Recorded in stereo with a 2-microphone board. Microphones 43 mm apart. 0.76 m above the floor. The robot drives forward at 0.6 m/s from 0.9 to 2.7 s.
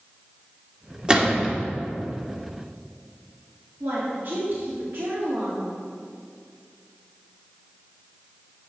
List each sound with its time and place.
1.1 s a gunshot: 25° right (ahead or behind), 1.8 m; by 1.6 s 30° right (ahead or behind), 1.5 m
3.8 s a woman speaking: 60° right (ahead or behind), 1.9 m